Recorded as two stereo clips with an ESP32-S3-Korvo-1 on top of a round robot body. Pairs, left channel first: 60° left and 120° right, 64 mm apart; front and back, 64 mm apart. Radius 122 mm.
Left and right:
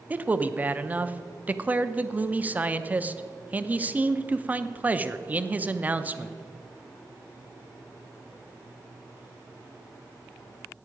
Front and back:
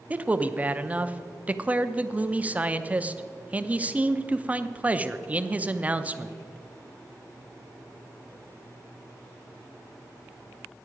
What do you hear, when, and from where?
0.1 s a man speaking: 150° right, 0.8 m